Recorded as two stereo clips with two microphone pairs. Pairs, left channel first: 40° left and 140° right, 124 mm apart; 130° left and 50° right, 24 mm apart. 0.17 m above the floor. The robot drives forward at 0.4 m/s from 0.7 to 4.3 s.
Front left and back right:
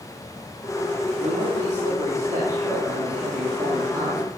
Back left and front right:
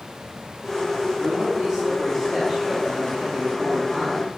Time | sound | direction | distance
1.2 | a man speaking | 145° right | 3.5 m